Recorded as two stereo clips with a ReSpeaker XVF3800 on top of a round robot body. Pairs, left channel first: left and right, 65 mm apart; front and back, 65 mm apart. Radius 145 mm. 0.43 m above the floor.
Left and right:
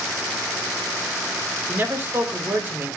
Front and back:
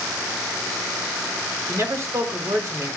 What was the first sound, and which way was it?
A man speaking, 140° right.